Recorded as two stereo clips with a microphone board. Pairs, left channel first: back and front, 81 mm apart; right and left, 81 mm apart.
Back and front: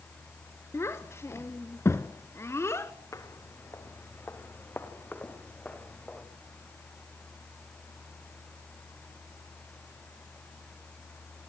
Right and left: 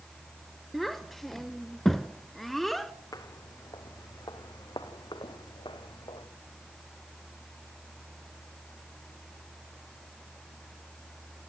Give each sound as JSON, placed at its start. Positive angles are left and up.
{"t": 0.7, "sound": "a child speaking", "azimuth_deg": -175, "distance_m": 1.4}
{"t": 3.1, "sound": "footsteps", "azimuth_deg": -130, "distance_m": 3.5}